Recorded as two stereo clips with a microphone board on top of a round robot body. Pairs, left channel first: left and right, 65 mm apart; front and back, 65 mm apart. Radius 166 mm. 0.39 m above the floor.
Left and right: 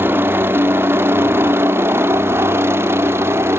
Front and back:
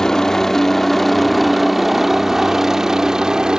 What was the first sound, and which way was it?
A helicopter, 75° right.